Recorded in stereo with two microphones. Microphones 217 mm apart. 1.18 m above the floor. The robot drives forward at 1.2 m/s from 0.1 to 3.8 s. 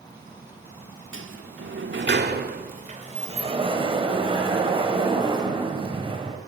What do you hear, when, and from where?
1.1 s a sliding door: 65° right (ahead or behind), 1.4 m; by 6.4 s 25° right (ahead or behind), 3 m